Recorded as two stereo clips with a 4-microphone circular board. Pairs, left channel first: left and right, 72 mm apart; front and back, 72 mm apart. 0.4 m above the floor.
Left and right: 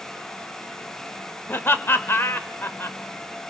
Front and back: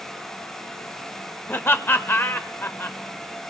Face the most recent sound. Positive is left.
turn(degrees=45)